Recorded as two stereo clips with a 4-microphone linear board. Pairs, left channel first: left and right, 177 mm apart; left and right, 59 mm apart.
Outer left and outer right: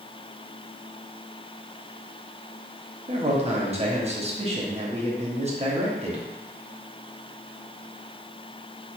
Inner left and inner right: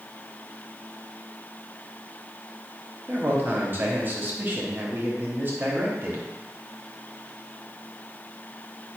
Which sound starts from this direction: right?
A man speaking, at 3.1 s.